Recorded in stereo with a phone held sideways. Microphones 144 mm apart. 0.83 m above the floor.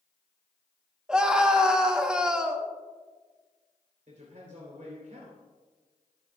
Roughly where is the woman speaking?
Right.